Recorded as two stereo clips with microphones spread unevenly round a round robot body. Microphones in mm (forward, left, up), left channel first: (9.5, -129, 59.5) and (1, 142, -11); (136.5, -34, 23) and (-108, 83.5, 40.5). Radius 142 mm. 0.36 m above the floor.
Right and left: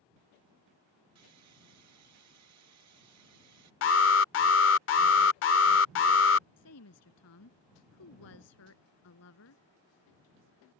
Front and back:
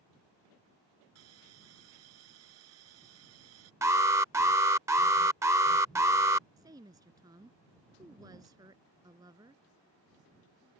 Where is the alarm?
125° right.